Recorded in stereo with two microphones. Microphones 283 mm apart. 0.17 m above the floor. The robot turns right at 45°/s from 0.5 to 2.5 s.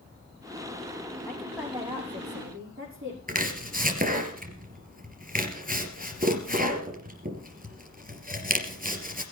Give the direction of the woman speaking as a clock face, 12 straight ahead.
6 o'clock.